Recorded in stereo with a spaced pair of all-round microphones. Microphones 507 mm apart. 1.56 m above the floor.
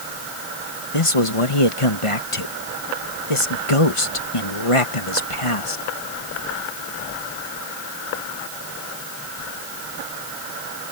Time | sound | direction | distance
0.9 | a man speaking | 80° left | ?